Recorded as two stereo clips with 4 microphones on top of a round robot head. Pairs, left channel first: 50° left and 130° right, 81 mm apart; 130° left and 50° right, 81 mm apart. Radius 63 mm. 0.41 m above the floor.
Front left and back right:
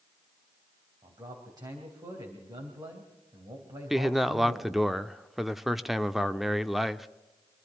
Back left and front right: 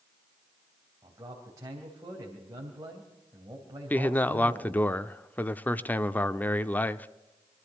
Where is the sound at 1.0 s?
95° right, 3 m.